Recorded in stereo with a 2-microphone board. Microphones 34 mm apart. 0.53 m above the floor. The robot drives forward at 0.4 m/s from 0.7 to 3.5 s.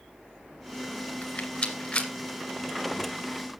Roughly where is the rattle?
Left.